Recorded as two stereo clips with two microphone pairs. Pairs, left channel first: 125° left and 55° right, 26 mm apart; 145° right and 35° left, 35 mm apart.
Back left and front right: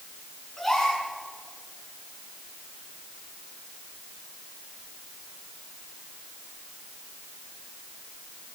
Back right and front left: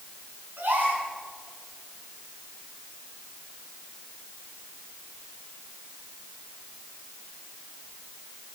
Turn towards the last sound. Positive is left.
turn(degrees=40)